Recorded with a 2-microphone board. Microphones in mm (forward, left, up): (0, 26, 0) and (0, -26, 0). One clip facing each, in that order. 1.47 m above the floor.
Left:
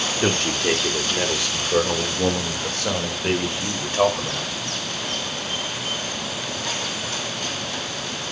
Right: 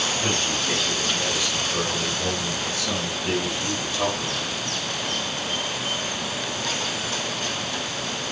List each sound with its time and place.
0.2 s a man speaking: 80° left, 3.5 m; by 4.6 s 50° left (ahead or behind), 6 m